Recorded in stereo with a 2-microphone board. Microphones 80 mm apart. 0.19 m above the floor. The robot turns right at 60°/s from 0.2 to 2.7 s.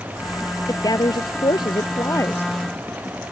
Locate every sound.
0.7 s a woman speaking: 50° left; by 2.5 s 160° left